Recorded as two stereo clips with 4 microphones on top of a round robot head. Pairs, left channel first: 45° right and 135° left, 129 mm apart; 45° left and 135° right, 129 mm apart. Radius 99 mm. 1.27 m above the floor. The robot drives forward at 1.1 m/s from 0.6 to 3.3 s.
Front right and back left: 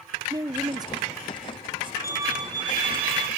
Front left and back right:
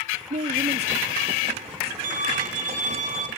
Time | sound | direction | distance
0.3 | a woman speaking | 160° right | 0.7 m
2.0 | a violin | 155° right | 1.0 m